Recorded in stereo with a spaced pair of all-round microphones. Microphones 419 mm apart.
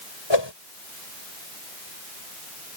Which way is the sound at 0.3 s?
85° left.